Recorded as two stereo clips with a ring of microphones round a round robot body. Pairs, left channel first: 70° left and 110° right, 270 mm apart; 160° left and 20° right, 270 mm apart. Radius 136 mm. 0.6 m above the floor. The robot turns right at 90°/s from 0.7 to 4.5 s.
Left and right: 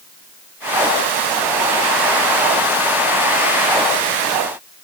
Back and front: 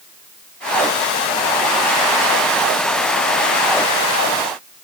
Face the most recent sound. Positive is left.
No sound to turn to.